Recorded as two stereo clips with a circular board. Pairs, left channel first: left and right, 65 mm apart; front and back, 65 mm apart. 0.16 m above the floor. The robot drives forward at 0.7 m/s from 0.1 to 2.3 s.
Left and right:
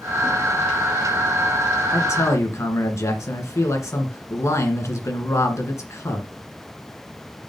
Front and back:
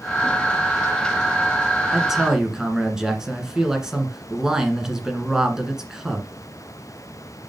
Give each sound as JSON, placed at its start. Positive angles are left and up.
{"t": 1.9, "sound": "a man speaking", "azimuth_deg": 90, "distance_m": 1.8}